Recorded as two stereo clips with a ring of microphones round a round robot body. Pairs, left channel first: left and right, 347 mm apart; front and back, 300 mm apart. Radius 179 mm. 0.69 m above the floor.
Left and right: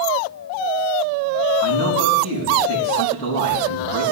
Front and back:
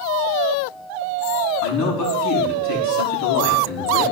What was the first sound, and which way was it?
A man speaking, 20° left.